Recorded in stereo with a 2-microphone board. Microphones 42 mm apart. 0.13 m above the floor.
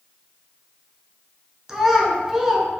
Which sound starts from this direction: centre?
A child speaking, at 1.7 s.